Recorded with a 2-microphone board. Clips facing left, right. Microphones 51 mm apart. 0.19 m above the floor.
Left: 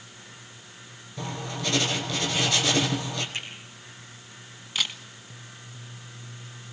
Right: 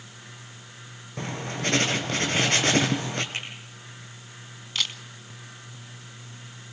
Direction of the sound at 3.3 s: 50° right (ahead or behind).